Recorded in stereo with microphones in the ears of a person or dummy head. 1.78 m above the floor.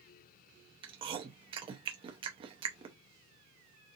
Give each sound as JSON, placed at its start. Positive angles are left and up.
{"t": 0.8, "sound": "chewing", "side_deg": -30, "distance_m": 0.6}